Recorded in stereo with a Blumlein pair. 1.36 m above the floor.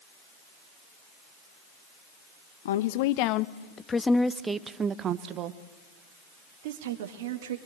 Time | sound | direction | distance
2.6 | a woman speaking | 60° left | 1.1 m